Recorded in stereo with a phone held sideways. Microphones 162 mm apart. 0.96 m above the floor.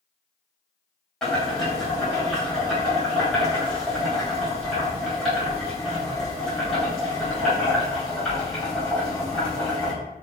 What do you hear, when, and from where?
1.2 s boiling: 5° left (ahead or behind), 1.6 m